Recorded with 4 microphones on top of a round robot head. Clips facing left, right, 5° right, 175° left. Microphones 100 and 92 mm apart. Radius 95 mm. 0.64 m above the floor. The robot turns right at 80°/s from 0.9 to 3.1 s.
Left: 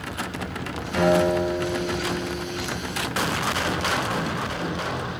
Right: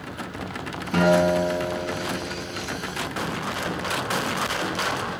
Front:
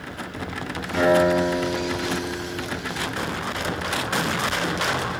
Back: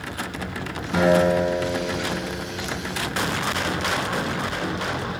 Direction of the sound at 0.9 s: 115° right.